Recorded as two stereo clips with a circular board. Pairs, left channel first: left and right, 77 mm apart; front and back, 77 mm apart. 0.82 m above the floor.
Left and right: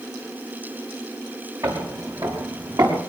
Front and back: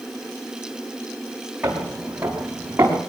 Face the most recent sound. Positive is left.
turn(degrees=-115)